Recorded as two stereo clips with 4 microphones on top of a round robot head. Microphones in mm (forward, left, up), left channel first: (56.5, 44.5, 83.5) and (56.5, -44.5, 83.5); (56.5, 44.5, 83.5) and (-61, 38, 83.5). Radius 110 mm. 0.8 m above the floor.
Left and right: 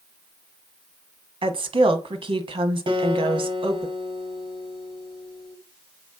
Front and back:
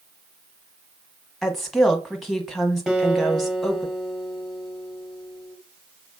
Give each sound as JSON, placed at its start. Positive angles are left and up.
{"t": 1.4, "sound": "a woman speaking", "azimuth_deg": -85, "distance_m": 1.3}
{"t": 2.9, "sound": "a guitar", "azimuth_deg": -90, "distance_m": 1.3}